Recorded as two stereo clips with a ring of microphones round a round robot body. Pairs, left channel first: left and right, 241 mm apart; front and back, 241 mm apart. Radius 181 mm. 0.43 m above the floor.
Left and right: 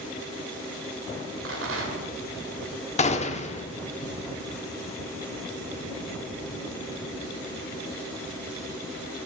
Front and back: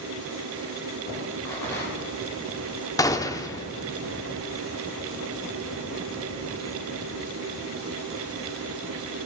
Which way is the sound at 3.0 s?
65° left.